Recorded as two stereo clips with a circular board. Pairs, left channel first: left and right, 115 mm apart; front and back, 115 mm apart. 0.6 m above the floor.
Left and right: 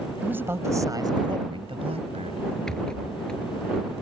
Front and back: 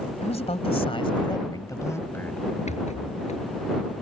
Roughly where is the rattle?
Ahead.